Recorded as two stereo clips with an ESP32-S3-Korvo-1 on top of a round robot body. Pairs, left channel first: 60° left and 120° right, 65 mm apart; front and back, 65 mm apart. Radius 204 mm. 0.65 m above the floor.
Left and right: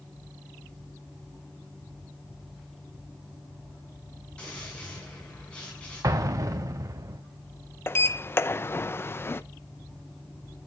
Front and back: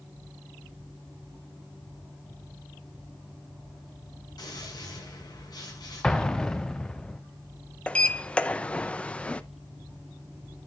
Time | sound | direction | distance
4.4 | a gunshot | 15° right | 6 m
6.0 | an explosion | 80° right | 0.6 m
7.9 | a sliding door | 60° left | 0.8 m